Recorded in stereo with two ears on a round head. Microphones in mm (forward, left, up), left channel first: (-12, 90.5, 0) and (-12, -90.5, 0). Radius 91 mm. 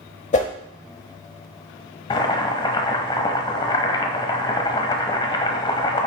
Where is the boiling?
25° left (ahead or behind), 1.1 m.